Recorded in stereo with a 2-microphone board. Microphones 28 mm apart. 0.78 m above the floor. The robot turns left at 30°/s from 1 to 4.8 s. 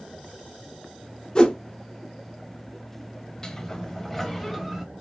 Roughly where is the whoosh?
Left.